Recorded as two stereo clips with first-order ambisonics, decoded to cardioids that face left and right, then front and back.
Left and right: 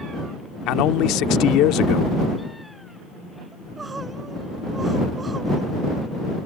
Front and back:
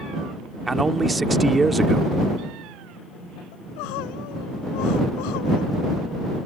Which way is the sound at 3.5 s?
15° right.